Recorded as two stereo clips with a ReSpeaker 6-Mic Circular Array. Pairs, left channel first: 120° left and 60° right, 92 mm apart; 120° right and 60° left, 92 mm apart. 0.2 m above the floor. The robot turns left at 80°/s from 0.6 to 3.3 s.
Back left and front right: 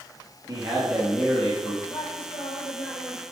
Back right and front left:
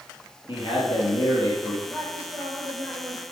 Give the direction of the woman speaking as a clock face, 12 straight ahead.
7 o'clock.